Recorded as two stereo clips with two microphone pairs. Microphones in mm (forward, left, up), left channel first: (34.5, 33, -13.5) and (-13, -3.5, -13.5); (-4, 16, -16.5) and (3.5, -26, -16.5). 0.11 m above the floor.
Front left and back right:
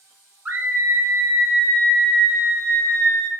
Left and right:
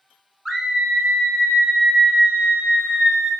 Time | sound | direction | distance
0.5 | a scream | 160° right | 1.5 m